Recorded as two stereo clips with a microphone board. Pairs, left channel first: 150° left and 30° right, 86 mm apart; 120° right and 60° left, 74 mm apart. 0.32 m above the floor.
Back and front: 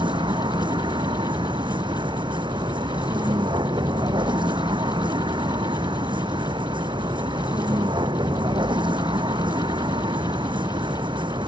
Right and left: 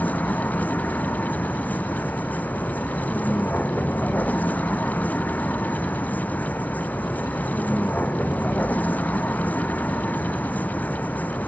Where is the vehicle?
50° right.